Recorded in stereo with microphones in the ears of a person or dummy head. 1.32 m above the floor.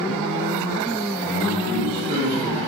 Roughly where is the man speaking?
Right.